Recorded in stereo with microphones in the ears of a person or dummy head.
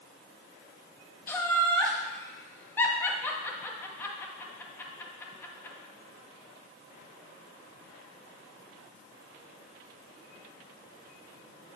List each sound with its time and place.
1.3 s laughter: 15° left (ahead or behind), 1.3 m